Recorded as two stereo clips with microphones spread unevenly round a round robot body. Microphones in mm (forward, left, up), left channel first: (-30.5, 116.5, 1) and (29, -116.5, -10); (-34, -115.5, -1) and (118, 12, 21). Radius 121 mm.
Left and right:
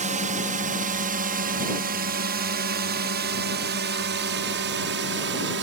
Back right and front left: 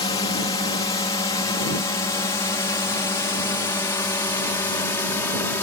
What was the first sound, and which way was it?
A drone, 100° right.